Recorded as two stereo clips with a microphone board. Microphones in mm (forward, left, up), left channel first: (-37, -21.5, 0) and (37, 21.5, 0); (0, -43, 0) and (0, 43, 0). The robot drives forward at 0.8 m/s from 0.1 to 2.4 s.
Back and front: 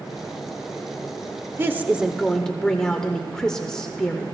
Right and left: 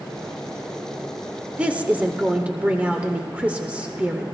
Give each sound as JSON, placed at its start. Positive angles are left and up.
{"t": 1.6, "sound": "a woman speaking", "azimuth_deg": 35, "distance_m": 0.9}